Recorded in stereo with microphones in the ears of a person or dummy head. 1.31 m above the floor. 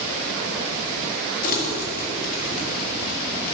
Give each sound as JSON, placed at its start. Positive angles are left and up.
{"t": 1.4, "sound": "crumpling", "side_deg": 50, "distance_m": 1.8}